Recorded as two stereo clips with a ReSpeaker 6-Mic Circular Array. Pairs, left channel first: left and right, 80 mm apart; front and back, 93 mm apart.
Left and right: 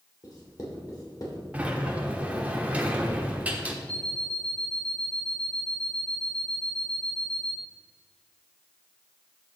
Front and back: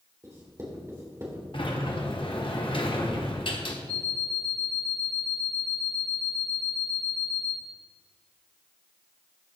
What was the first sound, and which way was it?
Writing, 120° left.